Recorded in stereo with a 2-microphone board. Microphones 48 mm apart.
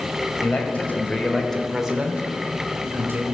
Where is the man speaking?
40° left (ahead or behind), 2.5 m; by 3.2 s 60° right (ahead or behind), 2.5 m.